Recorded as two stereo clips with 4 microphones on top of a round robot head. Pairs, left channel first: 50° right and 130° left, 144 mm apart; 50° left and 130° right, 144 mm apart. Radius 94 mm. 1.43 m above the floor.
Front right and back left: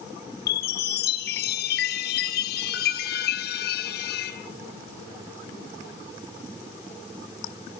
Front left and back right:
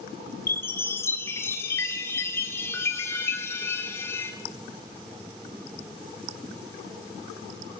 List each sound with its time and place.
0.5 s a chime: 25° right, 3.5 m